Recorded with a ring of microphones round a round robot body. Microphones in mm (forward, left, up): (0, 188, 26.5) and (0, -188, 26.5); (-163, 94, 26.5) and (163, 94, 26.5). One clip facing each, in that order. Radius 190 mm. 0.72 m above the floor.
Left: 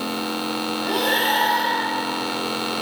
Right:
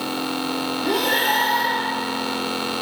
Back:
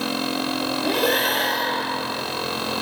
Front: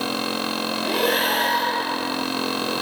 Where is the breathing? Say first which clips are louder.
Right 1 dB, even; 150° right, 8 m.